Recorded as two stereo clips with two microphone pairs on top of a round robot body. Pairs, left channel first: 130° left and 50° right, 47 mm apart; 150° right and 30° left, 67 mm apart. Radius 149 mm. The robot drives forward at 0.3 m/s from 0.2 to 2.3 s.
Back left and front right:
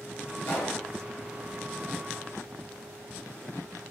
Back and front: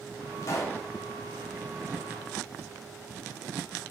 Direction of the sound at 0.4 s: 160° left.